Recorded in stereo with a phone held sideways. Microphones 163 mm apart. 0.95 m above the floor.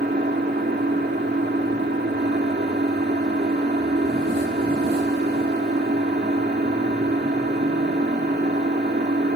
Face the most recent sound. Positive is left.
turn(degrees=-70)  # may be behind; listen again after turning